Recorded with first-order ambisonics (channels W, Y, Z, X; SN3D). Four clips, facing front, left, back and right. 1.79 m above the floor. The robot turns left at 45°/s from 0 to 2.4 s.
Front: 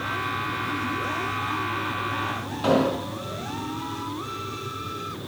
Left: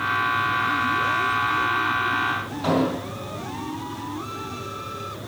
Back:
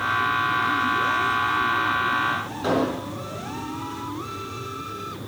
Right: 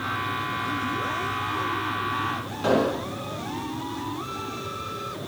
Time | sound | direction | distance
2.6 | an explosion | 10° right | 2.5 m